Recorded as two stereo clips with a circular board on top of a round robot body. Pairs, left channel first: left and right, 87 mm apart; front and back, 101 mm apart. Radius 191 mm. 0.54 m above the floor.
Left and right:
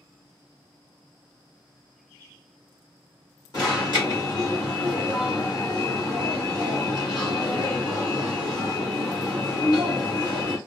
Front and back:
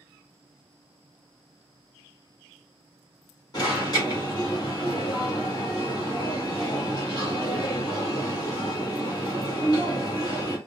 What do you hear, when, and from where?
3.5 s an alarm: 50° left, 1.8 m